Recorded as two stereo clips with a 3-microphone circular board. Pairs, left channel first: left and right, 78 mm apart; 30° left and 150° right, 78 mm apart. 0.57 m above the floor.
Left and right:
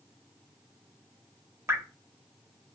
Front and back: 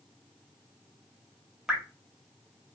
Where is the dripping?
75° right, 0.8 m.